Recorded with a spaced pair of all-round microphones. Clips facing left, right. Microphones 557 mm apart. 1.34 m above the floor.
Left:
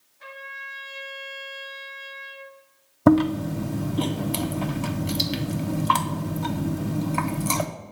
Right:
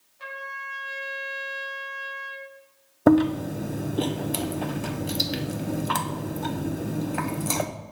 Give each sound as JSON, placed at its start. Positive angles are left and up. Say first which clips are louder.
{"t": 0.2, "sound": "a trumpet", "louder": "right 3 dB", "side_deg": -85, "distance_m": 4.0}
{"t": 3.1, "sound": "chewing", "louder": "even", "side_deg": 25, "distance_m": 0.6}